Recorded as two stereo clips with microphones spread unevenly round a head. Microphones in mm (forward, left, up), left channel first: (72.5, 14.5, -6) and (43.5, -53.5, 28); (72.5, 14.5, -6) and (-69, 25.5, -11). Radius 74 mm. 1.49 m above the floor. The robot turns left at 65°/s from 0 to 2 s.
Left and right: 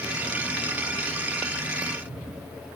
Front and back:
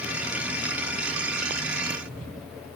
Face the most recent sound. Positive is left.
No sound to turn to.